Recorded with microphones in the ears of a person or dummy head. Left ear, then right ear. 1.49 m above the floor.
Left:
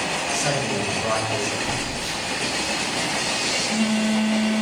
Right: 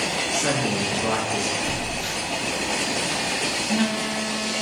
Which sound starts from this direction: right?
A phone buzzing, at 1.6 s.